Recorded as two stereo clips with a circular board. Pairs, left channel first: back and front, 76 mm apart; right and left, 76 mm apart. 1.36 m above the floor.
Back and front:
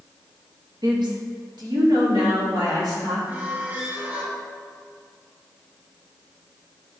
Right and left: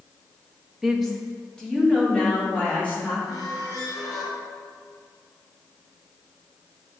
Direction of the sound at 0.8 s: 5° left.